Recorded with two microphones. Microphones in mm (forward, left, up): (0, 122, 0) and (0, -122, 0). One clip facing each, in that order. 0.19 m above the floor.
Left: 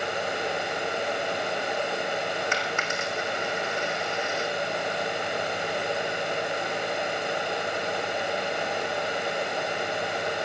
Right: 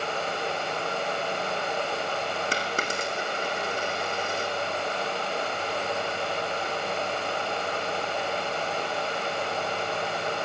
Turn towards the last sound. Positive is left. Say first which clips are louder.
# even
turn(degrees=-35)  # may be behind; listen again after turning